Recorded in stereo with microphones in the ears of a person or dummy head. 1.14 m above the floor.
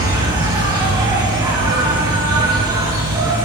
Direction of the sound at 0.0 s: 20° right (ahead or behind).